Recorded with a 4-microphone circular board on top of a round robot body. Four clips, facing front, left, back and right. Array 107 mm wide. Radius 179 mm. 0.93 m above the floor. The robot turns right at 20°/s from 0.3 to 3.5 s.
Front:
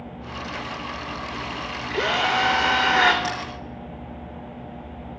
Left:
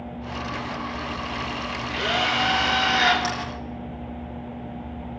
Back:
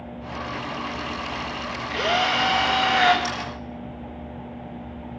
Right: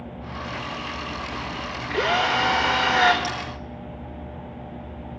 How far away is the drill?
About 3 m.